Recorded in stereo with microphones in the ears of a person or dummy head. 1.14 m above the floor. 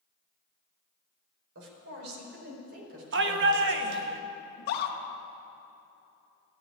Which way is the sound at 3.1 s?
55° right (ahead or behind).